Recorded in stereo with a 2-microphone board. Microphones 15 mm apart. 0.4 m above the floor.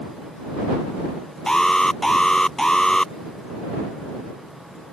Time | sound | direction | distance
1.5 | an alarm | 40° left (ahead or behind) | ?